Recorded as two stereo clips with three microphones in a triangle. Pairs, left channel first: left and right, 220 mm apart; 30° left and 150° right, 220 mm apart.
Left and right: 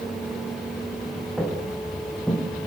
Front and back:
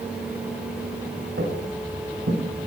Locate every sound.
1.4 s footsteps: straight behind, 6 m; by 2.4 s 175° left, 5.5 m